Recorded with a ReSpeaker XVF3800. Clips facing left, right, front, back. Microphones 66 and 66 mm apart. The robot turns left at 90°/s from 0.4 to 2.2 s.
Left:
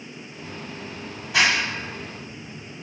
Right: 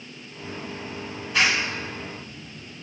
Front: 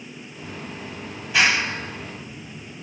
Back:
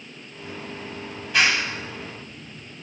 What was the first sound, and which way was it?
A clap, 100° left.